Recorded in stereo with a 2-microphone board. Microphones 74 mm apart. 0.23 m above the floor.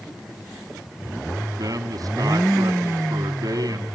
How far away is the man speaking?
About 1.5 m.